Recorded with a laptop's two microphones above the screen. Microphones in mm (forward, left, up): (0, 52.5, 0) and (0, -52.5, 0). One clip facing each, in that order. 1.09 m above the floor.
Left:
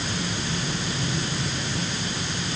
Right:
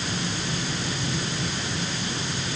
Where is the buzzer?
No buzzer in this recording.